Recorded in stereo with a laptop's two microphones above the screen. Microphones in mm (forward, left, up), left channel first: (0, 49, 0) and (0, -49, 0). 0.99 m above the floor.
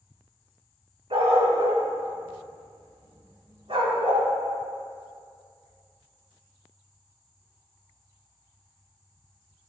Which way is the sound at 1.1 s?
75° right (ahead or behind).